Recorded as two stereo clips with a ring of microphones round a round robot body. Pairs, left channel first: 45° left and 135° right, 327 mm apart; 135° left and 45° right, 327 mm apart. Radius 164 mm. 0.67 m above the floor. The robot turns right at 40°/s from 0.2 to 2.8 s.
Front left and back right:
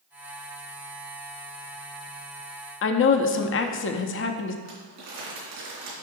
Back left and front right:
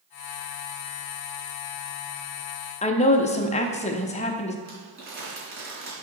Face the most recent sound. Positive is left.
turn(degrees=-95)